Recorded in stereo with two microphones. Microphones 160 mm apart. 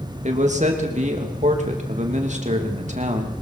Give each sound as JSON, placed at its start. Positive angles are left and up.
{"t": 0.2, "sound": "a man speaking", "side_deg": -45, "distance_m": 2.5}